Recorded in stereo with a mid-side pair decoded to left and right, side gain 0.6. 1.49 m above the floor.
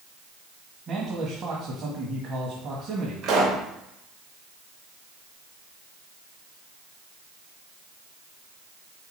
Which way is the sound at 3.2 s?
60° right.